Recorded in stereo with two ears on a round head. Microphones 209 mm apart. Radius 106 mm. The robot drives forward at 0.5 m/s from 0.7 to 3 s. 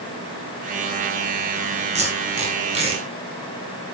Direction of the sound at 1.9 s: 30° right (ahead or behind).